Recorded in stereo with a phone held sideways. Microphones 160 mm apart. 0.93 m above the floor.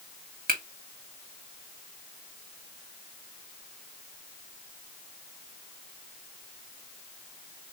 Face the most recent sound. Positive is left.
turn(degrees=-65)  # may be behind; listen again after turning